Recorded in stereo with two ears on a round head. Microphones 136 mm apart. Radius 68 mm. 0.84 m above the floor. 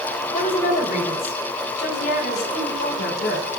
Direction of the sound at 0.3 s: 50° left (ahead or behind).